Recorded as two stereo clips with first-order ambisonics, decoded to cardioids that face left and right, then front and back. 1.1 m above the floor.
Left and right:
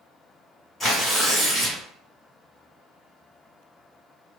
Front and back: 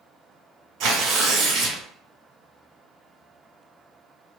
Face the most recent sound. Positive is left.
turn(degrees=165)